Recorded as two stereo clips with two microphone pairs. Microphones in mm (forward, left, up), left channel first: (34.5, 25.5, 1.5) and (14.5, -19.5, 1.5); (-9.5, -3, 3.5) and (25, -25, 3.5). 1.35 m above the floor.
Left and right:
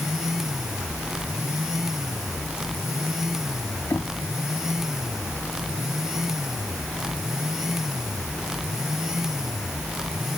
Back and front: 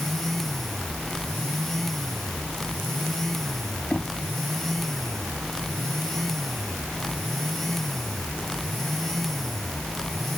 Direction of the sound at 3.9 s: 75° left.